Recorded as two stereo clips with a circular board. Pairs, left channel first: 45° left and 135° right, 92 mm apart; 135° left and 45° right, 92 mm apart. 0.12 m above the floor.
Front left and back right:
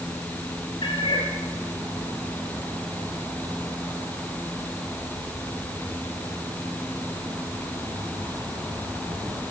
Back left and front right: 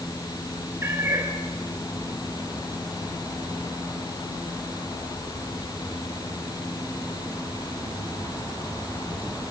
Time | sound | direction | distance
0.8 | a cat meowing | 20° left | 7 m